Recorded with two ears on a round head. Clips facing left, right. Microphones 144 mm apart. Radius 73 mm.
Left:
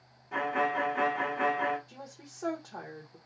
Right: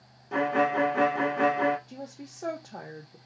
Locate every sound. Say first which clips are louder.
0.3 s a violin: right 5 dB; 40° right (ahead or behind), 0.7 m
1.9 s a woman speaking: right 7 dB; 20° right (ahead or behind), 0.7 m